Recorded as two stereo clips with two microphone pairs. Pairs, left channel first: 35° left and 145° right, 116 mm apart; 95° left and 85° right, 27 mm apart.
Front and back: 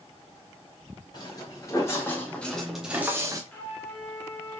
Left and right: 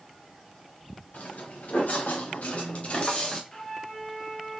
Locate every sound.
1.1 s footsteps: 90° left, 2.5 m; by 3.4 s 155° left, 1.3 m
3.5 s a flute: 105° left, 1.6 m